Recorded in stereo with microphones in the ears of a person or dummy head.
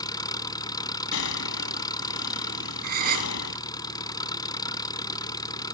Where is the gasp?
45° right (ahead or behind).